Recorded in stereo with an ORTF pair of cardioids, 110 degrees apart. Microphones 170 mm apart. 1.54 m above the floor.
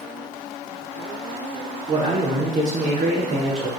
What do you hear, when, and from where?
1.9 s a man speaking: 45° right, 4 m; by 3.7 s 55° right, 4.5 m